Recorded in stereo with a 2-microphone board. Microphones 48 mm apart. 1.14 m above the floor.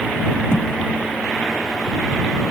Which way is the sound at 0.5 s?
60° left (ahead or behind).